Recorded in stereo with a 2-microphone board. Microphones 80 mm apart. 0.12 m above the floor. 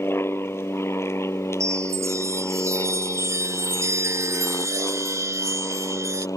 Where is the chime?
40° right (ahead or behind).